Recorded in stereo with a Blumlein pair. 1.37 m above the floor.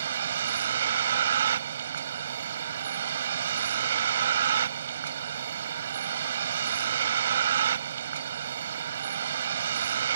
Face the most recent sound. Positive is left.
turn(degrees=-65)